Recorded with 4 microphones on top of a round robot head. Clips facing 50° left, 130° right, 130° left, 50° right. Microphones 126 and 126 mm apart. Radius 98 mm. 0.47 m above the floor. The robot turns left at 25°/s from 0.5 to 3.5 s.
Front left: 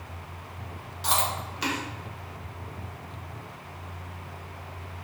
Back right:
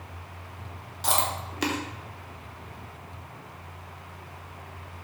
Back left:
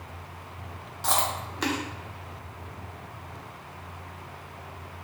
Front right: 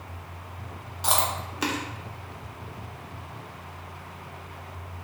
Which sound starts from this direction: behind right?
Chewing, at 1.0 s.